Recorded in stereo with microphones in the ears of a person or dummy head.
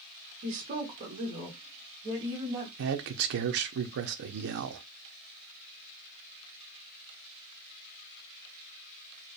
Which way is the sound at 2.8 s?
65° right (ahead or behind).